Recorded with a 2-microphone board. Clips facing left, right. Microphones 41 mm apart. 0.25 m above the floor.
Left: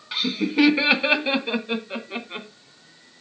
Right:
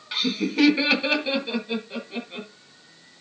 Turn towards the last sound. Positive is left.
turn(degrees=40)  # may be behind; listen again after turning